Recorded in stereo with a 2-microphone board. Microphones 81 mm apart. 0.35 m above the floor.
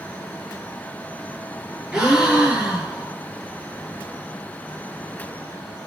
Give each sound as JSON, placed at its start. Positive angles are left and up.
{"t": 1.9, "sound": "a gasp", "side_deg": -5, "distance_m": 6.5}